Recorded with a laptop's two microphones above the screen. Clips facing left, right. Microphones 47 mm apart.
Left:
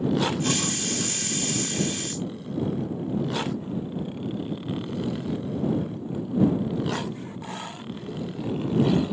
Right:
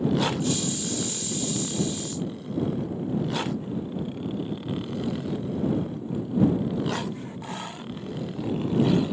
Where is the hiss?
80° left.